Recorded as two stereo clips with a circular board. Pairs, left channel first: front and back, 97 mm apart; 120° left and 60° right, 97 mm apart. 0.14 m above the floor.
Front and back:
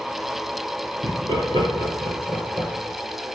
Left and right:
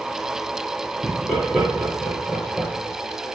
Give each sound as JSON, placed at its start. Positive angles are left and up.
{"t": 1.0, "sound": "laughter", "azimuth_deg": -155, "distance_m": 2.5}